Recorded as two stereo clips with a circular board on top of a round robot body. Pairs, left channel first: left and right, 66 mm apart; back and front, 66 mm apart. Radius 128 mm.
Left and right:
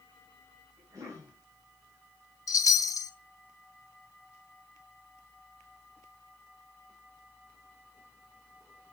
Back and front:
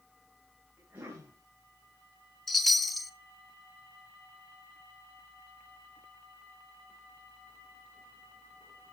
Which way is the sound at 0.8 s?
65° right.